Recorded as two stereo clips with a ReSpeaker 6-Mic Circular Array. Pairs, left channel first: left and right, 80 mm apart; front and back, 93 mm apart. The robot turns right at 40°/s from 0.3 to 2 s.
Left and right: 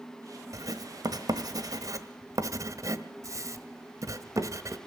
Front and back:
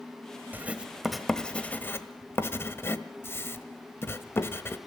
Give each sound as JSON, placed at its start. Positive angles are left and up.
{"t": 0.5, "sound": "writing", "azimuth_deg": -115, "distance_m": 1.3}